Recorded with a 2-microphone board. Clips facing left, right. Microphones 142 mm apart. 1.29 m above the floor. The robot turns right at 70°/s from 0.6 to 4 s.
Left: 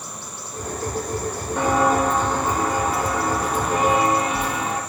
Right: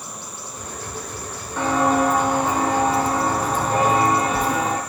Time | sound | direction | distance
1.6 | footsteps | 20° left (ahead or behind) | 1.9 m